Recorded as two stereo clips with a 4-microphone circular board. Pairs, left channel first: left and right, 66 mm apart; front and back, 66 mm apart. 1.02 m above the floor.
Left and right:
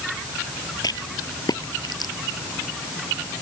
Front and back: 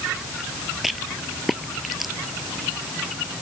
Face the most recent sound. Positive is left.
turn(degrees=95)